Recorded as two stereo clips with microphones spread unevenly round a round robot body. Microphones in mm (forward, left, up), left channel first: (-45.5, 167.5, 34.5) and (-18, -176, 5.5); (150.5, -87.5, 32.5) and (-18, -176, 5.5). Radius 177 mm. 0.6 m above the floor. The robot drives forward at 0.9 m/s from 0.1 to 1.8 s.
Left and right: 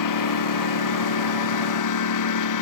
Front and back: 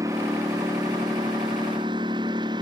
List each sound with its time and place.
0.0 s a lawn mower: 125° left; by 2.6 s 130° left